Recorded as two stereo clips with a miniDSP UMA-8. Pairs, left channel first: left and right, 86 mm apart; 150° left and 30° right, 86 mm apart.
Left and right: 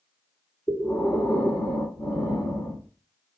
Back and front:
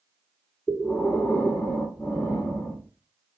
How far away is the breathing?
About 1.3 m.